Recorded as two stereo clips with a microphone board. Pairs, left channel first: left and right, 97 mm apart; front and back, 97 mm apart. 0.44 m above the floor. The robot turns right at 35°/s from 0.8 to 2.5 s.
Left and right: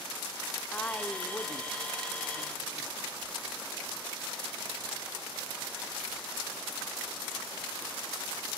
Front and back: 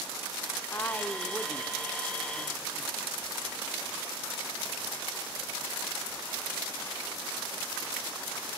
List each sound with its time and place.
0.7 s a woman speaking: 30° left, 1.3 m; by 3.0 s 90° left, 1.3 m